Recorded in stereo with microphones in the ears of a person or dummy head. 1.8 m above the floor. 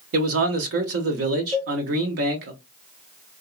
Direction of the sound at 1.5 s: 25° right (ahead or behind).